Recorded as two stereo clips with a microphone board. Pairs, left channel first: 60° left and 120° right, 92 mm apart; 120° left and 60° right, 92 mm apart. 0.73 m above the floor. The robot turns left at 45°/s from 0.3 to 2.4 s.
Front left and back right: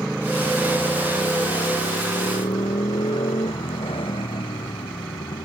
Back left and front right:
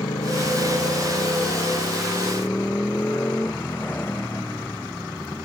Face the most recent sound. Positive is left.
turn(degrees=50)